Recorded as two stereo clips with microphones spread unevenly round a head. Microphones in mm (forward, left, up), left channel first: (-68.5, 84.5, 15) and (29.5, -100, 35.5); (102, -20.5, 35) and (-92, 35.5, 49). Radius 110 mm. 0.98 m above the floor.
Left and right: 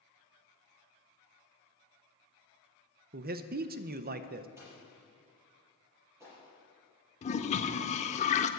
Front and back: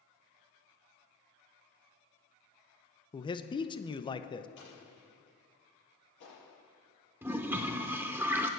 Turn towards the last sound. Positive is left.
turn(degrees=110)